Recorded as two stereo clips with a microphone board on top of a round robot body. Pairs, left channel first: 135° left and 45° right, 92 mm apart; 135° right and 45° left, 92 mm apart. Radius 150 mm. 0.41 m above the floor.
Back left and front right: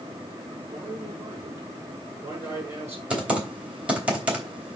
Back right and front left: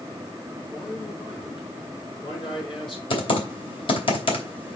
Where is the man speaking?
110° right, 6.5 m.